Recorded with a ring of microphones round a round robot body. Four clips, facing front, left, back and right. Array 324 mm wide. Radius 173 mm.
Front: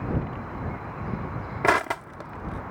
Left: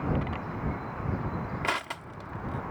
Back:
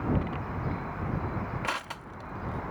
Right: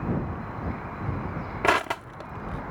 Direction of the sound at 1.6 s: 35° right.